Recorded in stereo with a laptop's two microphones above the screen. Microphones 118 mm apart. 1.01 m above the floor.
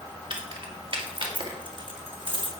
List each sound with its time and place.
0.3 s keys jangling: 45° right (ahead or behind), 1.6 m